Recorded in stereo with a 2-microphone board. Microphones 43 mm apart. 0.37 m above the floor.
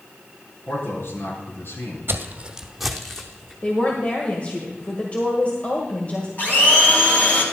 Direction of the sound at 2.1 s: 55° right (ahead or behind).